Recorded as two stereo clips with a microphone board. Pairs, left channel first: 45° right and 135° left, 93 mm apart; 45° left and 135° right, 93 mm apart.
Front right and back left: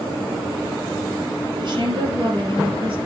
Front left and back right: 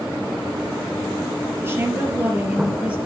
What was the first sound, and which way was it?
A woman speaking, 165° left.